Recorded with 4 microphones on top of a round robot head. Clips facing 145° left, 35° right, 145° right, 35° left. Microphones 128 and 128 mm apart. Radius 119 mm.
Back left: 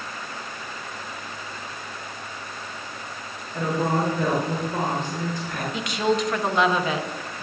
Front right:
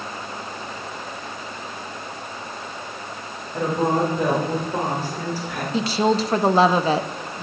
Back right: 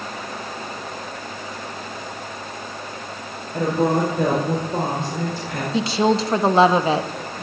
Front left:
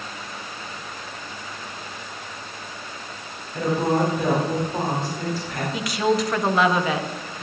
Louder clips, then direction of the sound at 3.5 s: Front right 3 dB, back right 2 dB; 110° right.